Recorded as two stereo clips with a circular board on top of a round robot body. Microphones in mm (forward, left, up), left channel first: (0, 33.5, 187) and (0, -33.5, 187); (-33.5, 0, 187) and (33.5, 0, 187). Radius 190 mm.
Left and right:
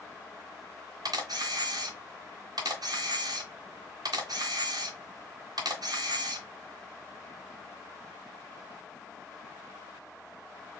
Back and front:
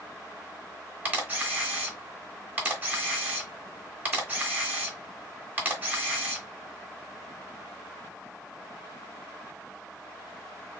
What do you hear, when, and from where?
1.1 s a camera shutter: 65° right, 1.0 m